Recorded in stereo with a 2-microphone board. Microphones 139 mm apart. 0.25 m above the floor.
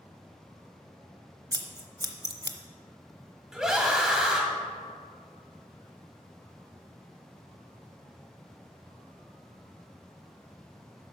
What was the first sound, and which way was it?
Scissors, 30° right (ahead or behind).